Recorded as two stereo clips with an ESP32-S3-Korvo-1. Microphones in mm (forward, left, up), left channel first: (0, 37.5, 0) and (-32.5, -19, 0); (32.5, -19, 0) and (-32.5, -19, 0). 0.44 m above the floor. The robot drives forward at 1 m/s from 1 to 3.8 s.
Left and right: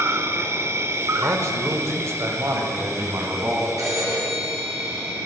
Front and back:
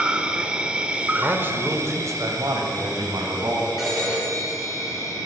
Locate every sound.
0.0 s an insect: 115° right, 0.8 m; by 5.3 s 170° right, 3 m
1.2 s a man speaking: 120° right, 1.0 m; by 3.7 s 170° right, 3 m
3.8 s a phone ringing: 95° right, 4 m